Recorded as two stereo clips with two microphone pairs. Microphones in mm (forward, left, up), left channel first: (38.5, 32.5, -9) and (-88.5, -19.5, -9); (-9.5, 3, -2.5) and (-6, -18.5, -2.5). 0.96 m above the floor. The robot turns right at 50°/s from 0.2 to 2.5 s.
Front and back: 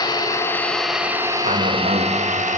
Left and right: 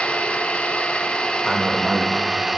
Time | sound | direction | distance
0.0 | an engine running | 80° left | 0.8 m
1.4 | a man speaking | straight behind | 1.2 m